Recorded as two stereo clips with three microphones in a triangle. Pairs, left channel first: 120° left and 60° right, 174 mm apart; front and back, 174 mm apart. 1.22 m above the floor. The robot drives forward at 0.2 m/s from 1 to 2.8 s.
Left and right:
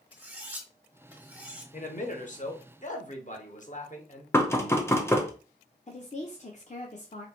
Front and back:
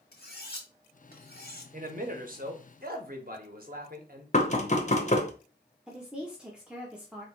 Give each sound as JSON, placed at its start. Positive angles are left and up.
{"t": 0.1, "sound": "cutlery clinking", "azimuth_deg": 20, "distance_m": 1.3}
{"t": 1.7, "sound": "a man speaking", "azimuth_deg": 150, "distance_m": 1.0}
{"t": 4.3, "sound": "knocking", "azimuth_deg": 45, "distance_m": 0.8}
{"t": 5.9, "sound": "a woman speaking", "azimuth_deg": 100, "distance_m": 0.7}